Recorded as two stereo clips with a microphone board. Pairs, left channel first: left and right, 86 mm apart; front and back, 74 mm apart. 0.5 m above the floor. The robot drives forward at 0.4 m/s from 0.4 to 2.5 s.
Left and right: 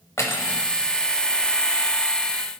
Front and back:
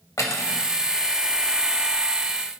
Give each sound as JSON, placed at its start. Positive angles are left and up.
{"t": 0.2, "sound": "cutlery clinking", "azimuth_deg": 35, "distance_m": 1.1}